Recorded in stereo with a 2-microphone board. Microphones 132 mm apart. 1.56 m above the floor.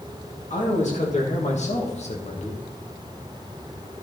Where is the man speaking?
60° left (ahead or behind), 2.5 m; by 2.6 s 50° left (ahead or behind), 1.4 m.